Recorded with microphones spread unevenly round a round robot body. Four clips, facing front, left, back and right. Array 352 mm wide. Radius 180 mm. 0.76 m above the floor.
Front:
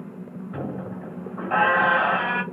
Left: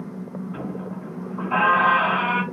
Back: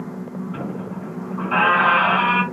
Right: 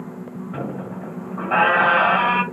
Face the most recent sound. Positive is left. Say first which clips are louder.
# right 5 dB, back 3 dB
turn(degrees=-45)